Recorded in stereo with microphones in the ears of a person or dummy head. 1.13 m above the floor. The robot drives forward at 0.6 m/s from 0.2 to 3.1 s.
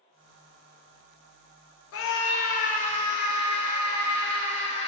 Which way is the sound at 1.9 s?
55° left (ahead or behind).